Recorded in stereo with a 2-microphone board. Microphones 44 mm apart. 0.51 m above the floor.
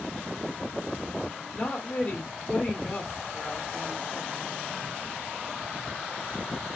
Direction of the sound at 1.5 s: 30° left (ahead or behind).